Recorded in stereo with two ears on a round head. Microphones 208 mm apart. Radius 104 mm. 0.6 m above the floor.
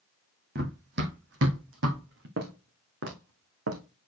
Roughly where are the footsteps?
Right.